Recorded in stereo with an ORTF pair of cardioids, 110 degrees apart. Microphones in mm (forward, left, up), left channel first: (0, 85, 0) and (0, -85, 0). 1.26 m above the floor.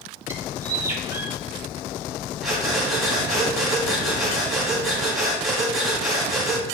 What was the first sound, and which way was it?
A bird, 15° right.